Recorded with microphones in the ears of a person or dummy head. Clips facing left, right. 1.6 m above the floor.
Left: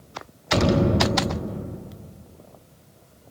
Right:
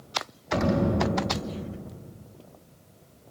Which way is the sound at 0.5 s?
55° left (ahead or behind).